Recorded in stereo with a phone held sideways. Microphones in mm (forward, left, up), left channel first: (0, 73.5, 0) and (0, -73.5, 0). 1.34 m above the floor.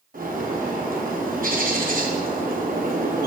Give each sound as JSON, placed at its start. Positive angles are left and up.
{"t": 0.1, "sound": "a bird", "side_deg": -70, "distance_m": 1.0}